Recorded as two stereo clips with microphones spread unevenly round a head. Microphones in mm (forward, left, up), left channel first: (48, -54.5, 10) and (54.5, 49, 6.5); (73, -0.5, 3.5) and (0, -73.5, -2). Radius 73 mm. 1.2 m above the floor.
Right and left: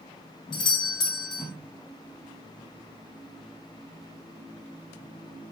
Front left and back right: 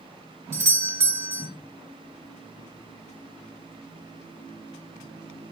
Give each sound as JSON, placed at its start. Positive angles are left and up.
{"t": 0.5, "sound": "a doorbell", "azimuth_deg": -85, "distance_m": 0.6}